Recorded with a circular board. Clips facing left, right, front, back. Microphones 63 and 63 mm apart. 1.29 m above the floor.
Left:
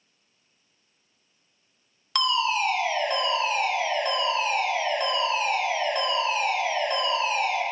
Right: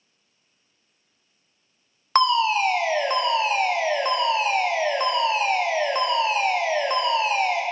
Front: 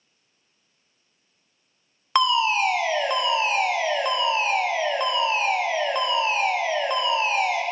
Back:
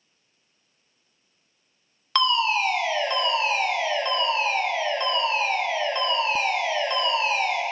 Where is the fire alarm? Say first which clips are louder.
Right 5 dB, front 2 dB; 70° right, 1.8 m.